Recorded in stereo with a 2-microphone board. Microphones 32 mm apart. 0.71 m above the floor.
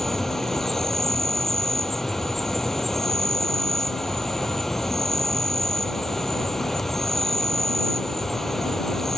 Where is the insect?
5° left (ahead or behind).